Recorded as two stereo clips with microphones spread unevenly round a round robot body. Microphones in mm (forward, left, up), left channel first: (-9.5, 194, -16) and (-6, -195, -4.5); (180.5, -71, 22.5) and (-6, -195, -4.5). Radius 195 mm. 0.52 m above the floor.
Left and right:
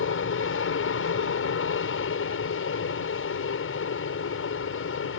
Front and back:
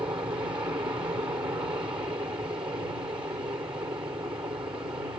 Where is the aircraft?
135° left.